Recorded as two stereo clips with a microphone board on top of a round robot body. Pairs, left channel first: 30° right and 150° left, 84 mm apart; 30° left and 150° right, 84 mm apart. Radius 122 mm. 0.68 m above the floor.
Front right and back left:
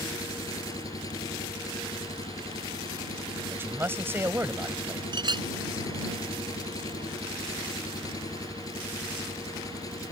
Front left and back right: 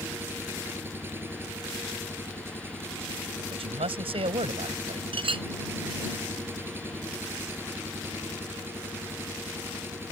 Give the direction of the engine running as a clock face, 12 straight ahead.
3 o'clock.